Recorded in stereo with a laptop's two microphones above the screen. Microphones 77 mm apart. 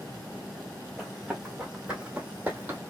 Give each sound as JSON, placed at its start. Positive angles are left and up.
{"t": 1.0, "sound": "running footsteps", "side_deg": -5, "distance_m": 2.0}